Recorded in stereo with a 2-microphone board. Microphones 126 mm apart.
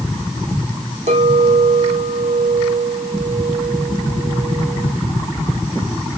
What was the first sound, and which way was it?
A clink, 65° right (ahead or behind).